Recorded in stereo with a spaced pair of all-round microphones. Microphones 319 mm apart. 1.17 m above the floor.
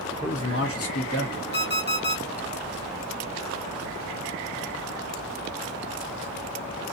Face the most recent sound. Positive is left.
turn(degrees=35)  # may be behind; listen again after turning